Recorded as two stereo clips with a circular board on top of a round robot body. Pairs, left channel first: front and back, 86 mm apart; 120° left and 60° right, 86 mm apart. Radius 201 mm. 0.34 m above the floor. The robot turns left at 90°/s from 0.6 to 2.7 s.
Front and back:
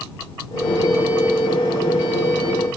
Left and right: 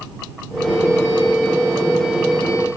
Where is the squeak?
I don't hear a squeak.